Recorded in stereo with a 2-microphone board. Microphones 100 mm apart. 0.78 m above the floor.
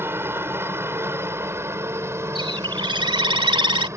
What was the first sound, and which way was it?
A helicopter, 20° right (ahead or behind).